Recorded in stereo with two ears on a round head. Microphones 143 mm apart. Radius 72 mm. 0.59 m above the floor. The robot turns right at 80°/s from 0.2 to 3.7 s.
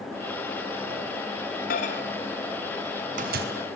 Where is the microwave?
60° left (ahead or behind), 4 m; by 3.5 s 75° right (ahead or behind), 4 m.